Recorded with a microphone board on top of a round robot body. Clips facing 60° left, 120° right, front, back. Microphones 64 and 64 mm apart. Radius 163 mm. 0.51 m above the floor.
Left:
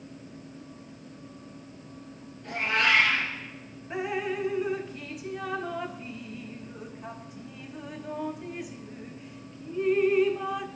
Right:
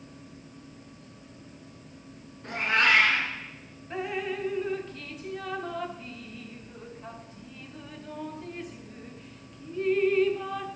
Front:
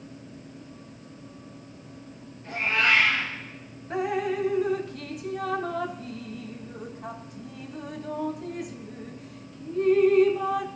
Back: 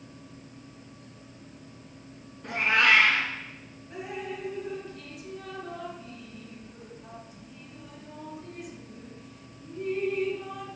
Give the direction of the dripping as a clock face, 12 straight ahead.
1 o'clock.